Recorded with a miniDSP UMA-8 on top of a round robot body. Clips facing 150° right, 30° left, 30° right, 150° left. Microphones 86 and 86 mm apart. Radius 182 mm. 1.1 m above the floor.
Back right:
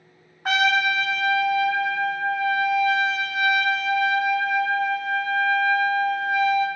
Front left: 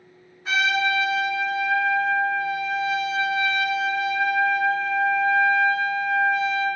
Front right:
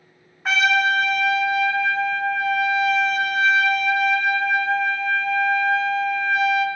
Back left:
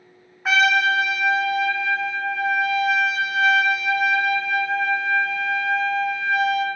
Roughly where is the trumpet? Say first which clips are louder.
Back right 2 dB, back left 1 dB; behind right.